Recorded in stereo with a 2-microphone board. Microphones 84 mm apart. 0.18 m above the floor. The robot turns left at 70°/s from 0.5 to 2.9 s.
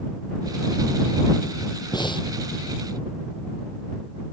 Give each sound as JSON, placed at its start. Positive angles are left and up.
{"t": 1.9, "sound": "breathing", "side_deg": 60}